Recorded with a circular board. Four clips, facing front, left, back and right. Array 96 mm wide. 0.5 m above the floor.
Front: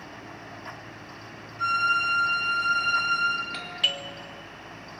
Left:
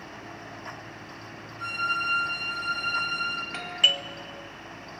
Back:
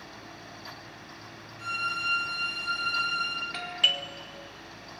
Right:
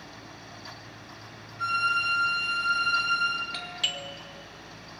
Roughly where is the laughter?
No laughter in this recording.